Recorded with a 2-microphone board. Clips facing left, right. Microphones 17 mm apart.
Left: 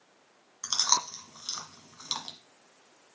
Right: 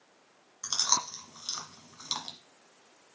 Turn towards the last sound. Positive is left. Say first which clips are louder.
# left 2 dB
turn(degrees=20)  # may be behind; listen again after turning